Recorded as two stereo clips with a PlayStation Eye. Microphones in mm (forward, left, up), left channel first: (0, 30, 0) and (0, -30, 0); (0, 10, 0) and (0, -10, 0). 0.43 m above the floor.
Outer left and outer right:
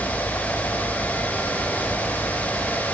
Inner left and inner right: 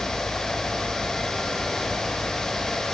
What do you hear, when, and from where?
Only background noise.